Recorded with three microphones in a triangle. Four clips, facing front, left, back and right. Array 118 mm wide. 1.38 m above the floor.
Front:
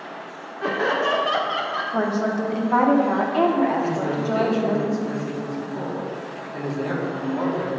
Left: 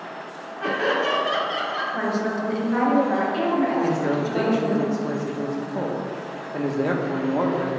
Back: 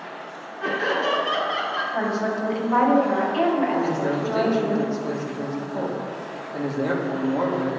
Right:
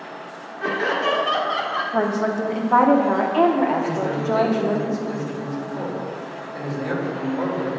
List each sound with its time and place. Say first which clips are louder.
0.6 s laughter: even, front 2 dB; 15° left, 1.5 m; by 1.8 s 75° right, 0.9 m
1.9 s a woman speaking: right 5 dB, front 3 dB; 65° right, 0.8 m
3.8 s a man speaking: even, even; 110° left, 1.0 m